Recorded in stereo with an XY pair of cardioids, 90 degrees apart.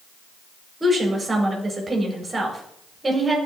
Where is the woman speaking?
25° right, 4.5 m.